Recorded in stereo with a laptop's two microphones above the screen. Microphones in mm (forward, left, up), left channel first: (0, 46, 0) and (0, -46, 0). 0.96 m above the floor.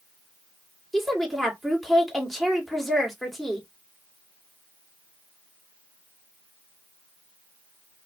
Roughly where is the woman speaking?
Centre.